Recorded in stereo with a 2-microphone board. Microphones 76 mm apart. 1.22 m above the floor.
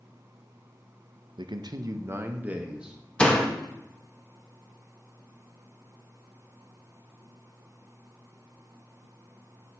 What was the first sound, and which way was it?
A man speaking, 85° right.